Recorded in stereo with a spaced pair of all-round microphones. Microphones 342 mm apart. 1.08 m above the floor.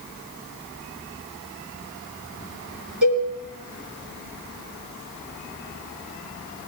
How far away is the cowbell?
About 4.5 m.